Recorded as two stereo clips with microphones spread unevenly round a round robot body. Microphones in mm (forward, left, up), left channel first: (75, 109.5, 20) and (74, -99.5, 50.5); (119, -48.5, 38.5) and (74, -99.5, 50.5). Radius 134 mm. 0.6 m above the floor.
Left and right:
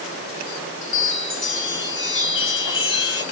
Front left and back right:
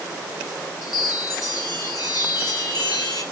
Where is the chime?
70° left, 3.5 m.